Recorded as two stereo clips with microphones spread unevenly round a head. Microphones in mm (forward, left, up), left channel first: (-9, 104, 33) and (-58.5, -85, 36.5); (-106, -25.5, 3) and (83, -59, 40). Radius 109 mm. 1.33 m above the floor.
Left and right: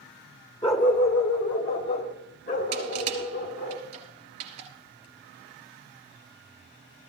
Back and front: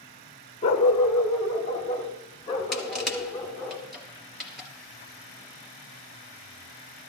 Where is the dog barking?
115° left, 0.9 m; by 3.7 s 90° left, 5 m.